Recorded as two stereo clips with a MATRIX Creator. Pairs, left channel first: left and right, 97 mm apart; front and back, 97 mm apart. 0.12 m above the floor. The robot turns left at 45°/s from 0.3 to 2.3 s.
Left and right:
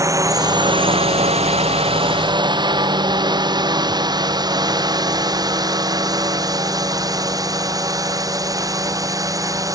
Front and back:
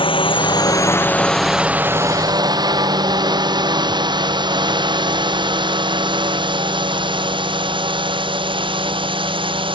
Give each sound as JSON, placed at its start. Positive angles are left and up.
{"t": 0.0, "sound": "a drone", "azimuth_deg": -30}